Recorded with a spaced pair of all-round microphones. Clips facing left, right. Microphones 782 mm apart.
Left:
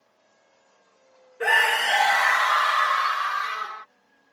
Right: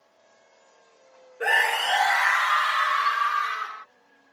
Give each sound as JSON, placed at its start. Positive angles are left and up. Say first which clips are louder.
{"t": 1.4, "sound": "a scream", "louder": "left 1 dB", "side_deg": 35}